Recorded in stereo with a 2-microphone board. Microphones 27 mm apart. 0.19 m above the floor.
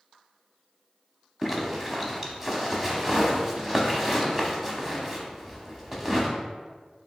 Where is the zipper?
10° right (ahead or behind), 0.7 m.